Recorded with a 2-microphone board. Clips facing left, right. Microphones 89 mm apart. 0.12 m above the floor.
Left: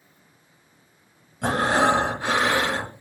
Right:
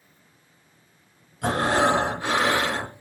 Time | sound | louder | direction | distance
1.4 | breathing | left 1 dB | 25° left (ahead or behind) | 1.3 m